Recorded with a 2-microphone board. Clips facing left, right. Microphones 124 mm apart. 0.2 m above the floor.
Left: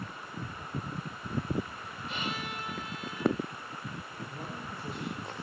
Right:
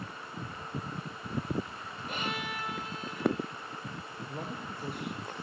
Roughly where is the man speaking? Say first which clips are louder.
Right 3 dB; right.